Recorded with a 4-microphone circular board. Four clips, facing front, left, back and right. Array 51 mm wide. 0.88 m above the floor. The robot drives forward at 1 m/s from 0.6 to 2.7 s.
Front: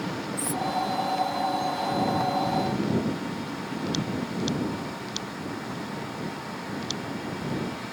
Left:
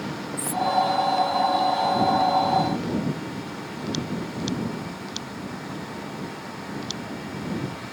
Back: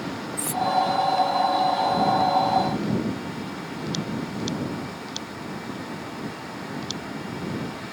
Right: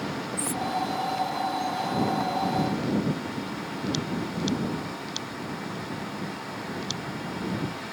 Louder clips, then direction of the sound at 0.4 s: Left 6 dB, back 4 dB; 175° left.